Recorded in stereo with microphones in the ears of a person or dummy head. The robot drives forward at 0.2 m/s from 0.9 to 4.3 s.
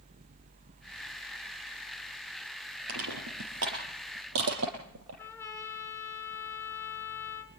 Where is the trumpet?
15° left (ahead or behind), 4 m.